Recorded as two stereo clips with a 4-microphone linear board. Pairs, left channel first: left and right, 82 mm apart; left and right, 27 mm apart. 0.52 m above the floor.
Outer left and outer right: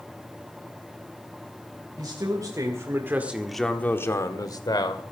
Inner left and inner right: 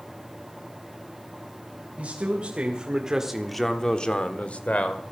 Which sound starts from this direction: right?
A man speaking, at 2.0 s.